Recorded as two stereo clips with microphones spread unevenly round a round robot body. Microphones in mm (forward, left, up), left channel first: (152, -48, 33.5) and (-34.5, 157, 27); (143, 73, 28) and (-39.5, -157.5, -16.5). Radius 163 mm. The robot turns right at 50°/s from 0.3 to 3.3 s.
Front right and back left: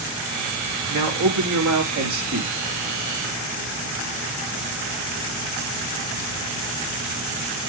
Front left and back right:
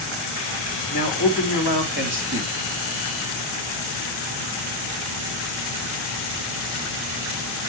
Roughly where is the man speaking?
Behind left.